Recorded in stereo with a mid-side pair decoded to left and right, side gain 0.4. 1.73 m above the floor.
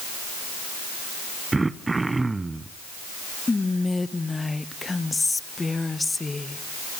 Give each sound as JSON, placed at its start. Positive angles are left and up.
{"t": 1.5, "sound": "throat clearing", "azimuth_deg": -25, "distance_m": 0.7}
{"t": 3.5, "sound": "whispering", "azimuth_deg": 25, "distance_m": 0.9}